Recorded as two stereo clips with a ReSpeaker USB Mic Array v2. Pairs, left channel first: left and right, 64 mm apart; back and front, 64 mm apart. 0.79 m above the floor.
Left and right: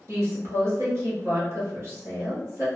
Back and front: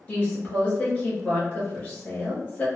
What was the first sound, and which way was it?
A woman speaking, 115° right.